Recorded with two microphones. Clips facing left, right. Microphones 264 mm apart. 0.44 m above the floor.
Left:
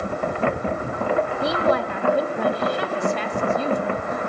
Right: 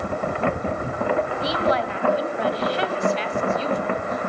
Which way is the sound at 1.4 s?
55° left (ahead or behind).